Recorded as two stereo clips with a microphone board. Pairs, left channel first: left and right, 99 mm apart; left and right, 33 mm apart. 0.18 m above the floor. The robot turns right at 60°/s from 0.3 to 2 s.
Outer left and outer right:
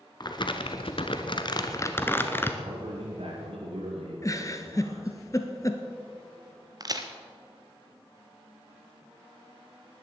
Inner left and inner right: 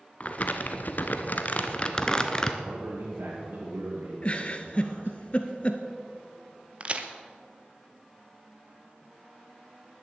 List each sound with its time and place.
0.2 s crumpling: 55° left, 1.1 m; by 2.5 s 155° left, 1.1 m
2.6 s a man speaking: 70° right (ahead or behind), 3 m
4.2 s a giggle: 35° left (ahead or behind), 1.1 m
6.8 s a crack: 40° right (ahead or behind), 1.1 m